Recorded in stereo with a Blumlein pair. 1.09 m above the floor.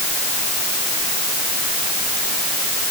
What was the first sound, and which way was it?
Only background noise.